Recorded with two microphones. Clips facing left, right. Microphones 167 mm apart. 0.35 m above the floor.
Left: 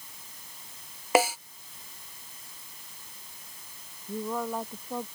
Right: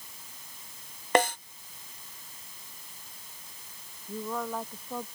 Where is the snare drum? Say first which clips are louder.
Left 1 dB; 5° left (ahead or behind).